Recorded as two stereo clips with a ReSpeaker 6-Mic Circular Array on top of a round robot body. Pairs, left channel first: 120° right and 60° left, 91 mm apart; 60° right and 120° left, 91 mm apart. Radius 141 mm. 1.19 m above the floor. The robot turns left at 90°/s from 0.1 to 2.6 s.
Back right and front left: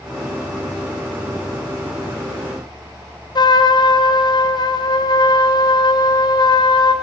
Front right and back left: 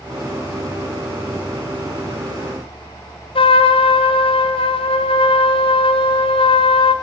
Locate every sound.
3.4 s a trumpet: 80° right, 1.4 m